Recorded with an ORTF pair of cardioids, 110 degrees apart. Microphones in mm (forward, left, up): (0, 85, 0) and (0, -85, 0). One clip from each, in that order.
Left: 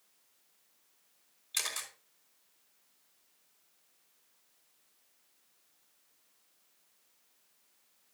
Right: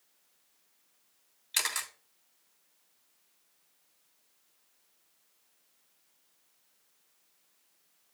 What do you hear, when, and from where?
1.5 s a camera shutter: 70° right, 3 m